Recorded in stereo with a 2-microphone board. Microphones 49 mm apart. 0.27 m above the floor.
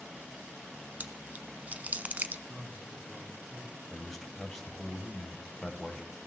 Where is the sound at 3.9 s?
5° left (ahead or behind), 1.5 m.